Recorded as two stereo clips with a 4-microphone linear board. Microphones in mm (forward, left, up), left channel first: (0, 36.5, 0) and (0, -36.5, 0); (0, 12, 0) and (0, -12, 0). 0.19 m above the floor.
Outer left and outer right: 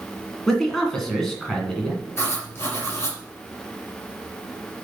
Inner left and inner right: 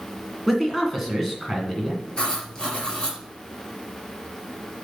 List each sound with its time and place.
0.5 s a man speaking: 5° left (ahead or behind), 2 m
2.2 s writing: 35° left (ahead or behind), 3 m